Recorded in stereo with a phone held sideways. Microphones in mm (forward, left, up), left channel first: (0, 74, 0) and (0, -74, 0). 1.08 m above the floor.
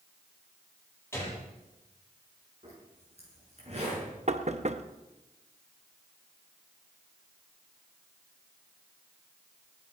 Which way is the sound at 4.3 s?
50° right (ahead or behind).